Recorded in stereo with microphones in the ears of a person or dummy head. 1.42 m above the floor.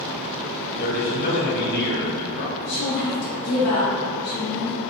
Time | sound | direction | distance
0.8 | a man speaking | 50° left (ahead or behind) | 0.9 m
2.6 | a woman speaking | 75° left (ahead or behind) | 1.0 m